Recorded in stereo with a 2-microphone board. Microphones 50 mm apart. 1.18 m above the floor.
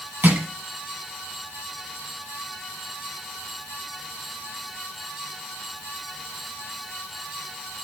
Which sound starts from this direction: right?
Crushing, at 0.2 s.